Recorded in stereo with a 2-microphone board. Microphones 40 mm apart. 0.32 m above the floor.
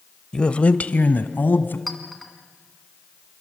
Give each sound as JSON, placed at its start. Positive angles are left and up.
{"t": 0.3, "sound": "a man speaking", "side_deg": 20, "distance_m": 1.0}
{"t": 1.9, "sound": "a clink", "side_deg": 0, "distance_m": 2.5}